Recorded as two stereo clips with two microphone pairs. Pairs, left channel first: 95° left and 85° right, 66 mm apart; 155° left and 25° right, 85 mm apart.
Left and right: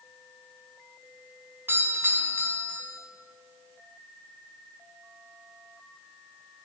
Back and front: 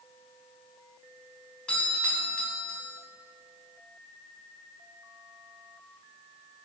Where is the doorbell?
130° right, 2.5 m.